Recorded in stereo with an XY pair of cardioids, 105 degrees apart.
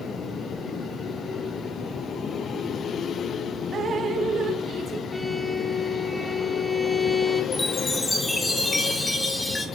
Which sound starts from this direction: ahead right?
Dripping, at 3.7 s.